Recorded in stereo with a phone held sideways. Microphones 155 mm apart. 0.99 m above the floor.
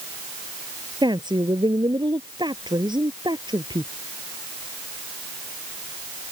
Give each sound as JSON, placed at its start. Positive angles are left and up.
{"t": 1.0, "sound": "a woman speaking", "side_deg": -30}